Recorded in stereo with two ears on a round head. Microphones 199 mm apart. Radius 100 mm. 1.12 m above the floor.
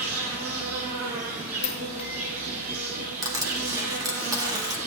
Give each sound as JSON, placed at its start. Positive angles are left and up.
{"t": 0.0, "sound": "an insect", "side_deg": -65, "distance_m": 3.0}
{"t": 1.6, "sound": "a dropped coin", "side_deg": 30, "distance_m": 0.9}
{"t": 3.2, "sound": "crushing", "side_deg": -20, "distance_m": 2.0}